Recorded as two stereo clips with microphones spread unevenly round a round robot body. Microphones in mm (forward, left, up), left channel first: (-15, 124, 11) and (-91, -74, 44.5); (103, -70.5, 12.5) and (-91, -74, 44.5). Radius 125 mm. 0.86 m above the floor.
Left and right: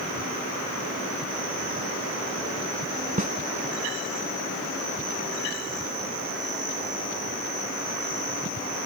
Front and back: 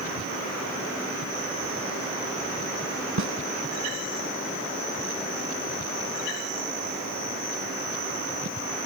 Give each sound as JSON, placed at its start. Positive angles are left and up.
{"t": 3.2, "sound": "a snare drum", "azimuth_deg": -165}